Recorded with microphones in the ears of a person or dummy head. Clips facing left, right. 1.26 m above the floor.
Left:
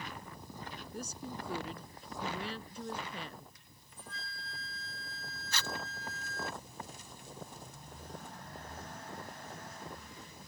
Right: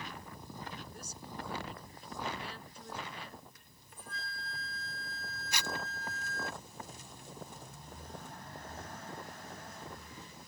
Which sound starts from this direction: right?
A flute, at 3.5 s.